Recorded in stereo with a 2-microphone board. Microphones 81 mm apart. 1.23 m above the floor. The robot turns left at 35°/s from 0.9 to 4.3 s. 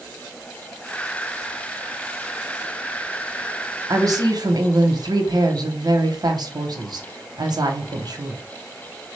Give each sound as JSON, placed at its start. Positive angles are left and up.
{"t": 3.9, "sound": "a woman speaking", "side_deg": -40, "distance_m": 0.8}